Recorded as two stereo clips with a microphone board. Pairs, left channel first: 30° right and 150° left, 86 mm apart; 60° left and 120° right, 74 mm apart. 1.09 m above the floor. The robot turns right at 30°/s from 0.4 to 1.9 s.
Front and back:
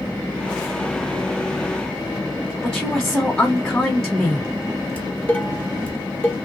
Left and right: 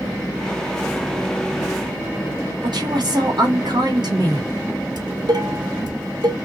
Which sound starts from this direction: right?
Dishes clattering, at 5.0 s.